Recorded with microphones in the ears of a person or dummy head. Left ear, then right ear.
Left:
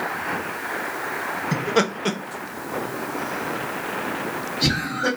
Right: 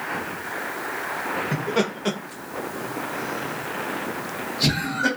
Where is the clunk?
I don't hear a clunk.